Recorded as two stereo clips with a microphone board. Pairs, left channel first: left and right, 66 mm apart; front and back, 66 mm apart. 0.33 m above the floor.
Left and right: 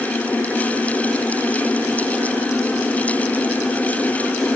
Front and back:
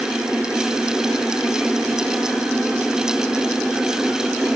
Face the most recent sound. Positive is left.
No sound to turn to.